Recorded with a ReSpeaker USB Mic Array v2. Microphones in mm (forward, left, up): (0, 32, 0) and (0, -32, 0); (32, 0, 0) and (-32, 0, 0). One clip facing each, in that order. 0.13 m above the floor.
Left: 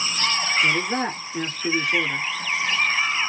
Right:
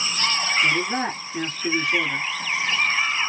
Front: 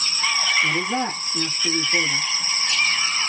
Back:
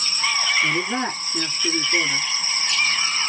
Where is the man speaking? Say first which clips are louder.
Even, even; 165° right, 1.5 m.